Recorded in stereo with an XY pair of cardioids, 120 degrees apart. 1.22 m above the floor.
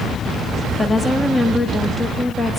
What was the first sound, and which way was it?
A woman speaking, 20° left.